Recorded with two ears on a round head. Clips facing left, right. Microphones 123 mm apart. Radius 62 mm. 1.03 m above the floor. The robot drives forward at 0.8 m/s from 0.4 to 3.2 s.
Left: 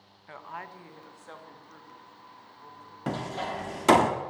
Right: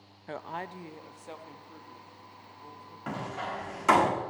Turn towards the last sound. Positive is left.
turn(degrees=35)  # may be behind; listen again after turning